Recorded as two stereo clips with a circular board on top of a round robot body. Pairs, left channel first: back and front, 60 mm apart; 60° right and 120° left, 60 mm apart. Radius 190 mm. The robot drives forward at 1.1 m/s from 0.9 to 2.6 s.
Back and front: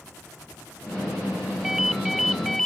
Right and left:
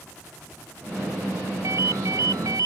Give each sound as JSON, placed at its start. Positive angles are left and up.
{"t": 1.6, "sound": "a ringtone", "azimuth_deg": 85}